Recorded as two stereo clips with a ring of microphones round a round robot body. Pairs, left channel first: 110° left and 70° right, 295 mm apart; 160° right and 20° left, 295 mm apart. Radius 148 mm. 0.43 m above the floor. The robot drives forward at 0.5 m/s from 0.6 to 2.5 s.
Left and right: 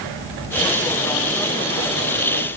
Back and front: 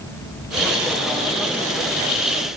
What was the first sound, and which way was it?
Only background noise.